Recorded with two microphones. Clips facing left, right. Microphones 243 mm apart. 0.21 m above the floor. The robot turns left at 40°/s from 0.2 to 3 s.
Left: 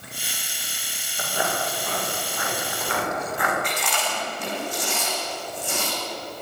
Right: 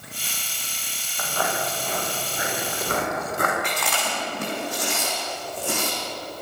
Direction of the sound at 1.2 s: 25° left (ahead or behind).